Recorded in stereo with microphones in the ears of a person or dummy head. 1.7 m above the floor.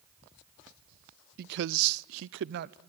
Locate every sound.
1.4 s a man speaking: 50° right (ahead or behind), 0.5 m